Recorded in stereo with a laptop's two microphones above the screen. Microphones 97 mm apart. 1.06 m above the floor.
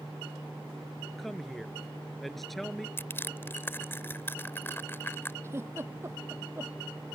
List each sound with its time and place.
1.2 s a woman speaking: centre (ahead or behind)
3.0 s crushing: 25° left (ahead or behind)
5.4 s a giggle: 30° right (ahead or behind)